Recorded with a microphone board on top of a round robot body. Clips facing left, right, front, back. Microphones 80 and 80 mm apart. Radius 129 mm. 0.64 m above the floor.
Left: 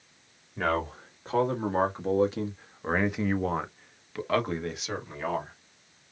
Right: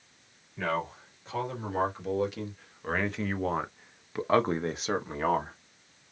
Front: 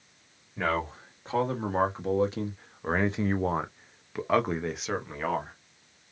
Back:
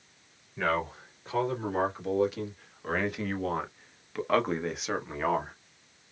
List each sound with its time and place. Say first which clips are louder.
0.6 s a man speaking: left 3 dB, even; 55° left, 1.9 m; by 5.5 s 100° right, 1.3 m